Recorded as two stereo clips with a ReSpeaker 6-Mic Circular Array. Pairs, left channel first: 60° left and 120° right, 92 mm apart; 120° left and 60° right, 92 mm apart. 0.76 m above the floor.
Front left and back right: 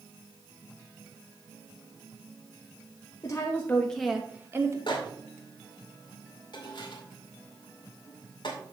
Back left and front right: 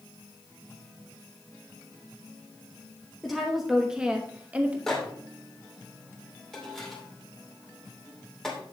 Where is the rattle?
No rattle in this recording.